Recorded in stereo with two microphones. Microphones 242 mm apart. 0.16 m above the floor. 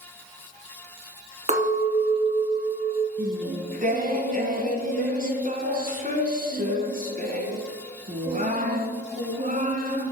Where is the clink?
30° right (ahead or behind), 1.0 m.